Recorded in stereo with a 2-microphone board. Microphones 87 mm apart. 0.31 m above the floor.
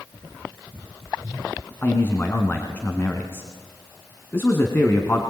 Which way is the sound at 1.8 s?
25° left (ahead or behind).